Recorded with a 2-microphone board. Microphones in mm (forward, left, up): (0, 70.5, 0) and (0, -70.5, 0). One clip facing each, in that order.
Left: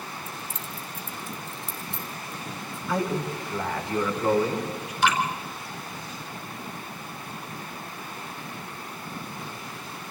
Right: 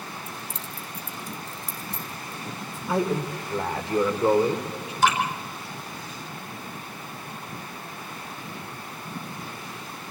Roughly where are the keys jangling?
Right.